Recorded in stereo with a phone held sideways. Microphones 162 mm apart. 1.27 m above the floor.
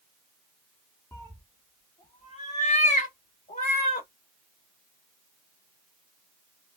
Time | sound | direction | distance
1.1 | a cat meowing | 15° left (ahead or behind) | 0.8 m